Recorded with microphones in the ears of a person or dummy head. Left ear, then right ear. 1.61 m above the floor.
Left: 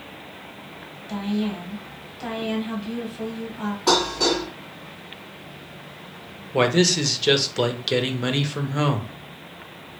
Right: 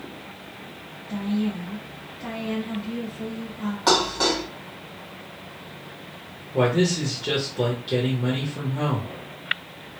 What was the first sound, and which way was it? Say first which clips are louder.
A woman speaking: left 1 dB; 30° left (ahead or behind).